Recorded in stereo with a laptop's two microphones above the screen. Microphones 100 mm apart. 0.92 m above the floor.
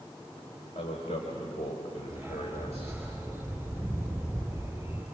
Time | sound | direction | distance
0.8 | a man speaking | 80° left | 4 m
2.1 | a dog barking | 20° right (ahead or behind) | 5.5 m